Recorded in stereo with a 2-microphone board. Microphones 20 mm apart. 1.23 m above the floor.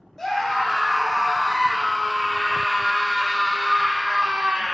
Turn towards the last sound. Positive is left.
turn(degrees=-60)  # may be behind; listen again after turning